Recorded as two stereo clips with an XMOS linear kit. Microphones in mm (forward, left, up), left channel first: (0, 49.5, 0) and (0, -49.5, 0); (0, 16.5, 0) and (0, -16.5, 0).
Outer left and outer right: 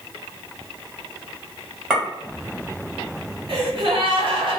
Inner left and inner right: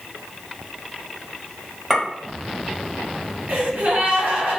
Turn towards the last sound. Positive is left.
turn(degrees=-60)  # may be behind; listen again after turning